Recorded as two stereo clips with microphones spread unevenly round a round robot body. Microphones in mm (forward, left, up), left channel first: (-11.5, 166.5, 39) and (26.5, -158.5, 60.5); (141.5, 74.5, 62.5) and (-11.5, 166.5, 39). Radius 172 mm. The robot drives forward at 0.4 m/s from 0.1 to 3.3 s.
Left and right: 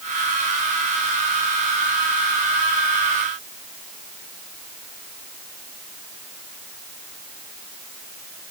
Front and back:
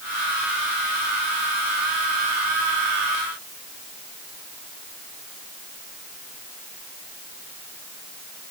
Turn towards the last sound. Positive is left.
No sound to turn to.